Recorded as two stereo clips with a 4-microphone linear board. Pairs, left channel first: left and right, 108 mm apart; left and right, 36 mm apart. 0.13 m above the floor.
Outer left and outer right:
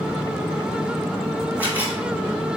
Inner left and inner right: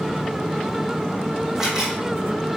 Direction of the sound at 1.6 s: 15° right (ahead or behind).